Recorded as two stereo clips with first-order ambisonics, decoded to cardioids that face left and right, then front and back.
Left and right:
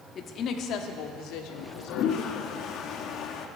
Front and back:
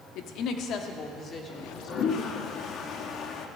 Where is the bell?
No bell in this recording.